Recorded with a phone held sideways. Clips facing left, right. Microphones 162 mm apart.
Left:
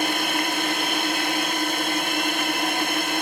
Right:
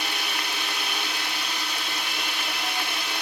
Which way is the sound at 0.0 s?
50° left (ahead or behind).